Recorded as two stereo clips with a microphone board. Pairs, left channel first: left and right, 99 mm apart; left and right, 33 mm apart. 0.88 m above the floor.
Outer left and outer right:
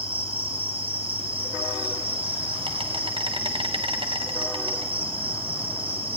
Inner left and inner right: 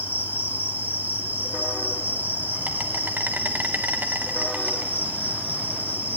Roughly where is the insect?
Right.